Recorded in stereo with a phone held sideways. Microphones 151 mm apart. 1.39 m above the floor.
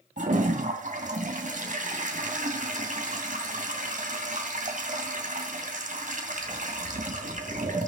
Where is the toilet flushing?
65° right (ahead or behind), 2.5 m.